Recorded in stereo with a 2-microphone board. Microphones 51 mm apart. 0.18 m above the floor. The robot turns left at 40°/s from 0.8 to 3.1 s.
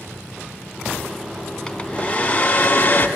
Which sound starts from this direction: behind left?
A hair dryer, at 1.7 s.